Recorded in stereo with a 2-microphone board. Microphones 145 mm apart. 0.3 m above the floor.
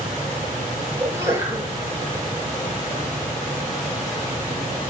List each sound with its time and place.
1.0 s a sneeze: 15° right (ahead or behind), 6 m